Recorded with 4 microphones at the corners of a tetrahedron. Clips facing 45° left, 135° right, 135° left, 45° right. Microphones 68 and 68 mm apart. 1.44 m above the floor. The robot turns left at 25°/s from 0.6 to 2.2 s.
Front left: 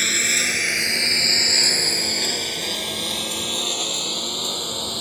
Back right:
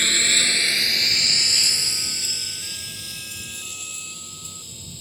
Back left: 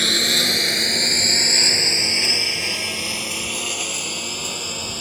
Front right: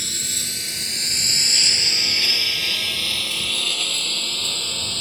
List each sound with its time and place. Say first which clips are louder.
0.0 s a lawn mower: even, back left 12 dB; 130° left; by 5.0 s 60° left